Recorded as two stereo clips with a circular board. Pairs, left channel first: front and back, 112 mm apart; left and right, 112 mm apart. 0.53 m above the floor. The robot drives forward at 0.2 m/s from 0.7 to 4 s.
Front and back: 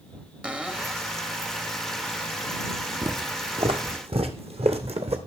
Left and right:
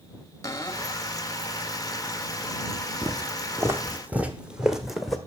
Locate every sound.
0.4 s a cupboard door: 110° left, 1.1 m; by 1.1 s 115° left, 1.2 m
3.0 s footsteps: 135° right, 1.3 m; by 5.2 s straight behind, 1.9 m